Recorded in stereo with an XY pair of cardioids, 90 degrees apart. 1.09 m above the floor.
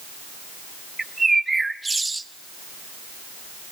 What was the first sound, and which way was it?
A bird, 20° right.